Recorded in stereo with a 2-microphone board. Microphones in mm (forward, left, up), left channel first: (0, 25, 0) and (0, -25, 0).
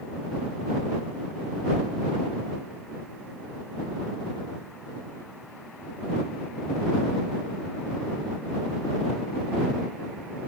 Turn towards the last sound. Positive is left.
No sound to turn to.